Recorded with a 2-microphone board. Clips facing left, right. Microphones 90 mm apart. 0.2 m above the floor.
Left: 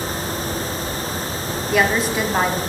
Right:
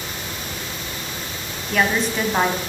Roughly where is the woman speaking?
Centre.